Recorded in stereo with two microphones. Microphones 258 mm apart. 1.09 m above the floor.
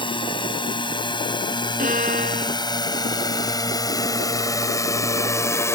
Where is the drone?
20° left (ahead or behind); by 5.8 s 10° left (ahead or behind).